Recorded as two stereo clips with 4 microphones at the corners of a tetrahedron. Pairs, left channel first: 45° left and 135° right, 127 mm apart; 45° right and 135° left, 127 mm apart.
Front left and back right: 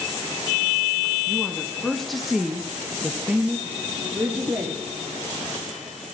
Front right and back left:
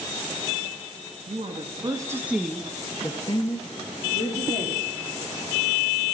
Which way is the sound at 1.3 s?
130° left.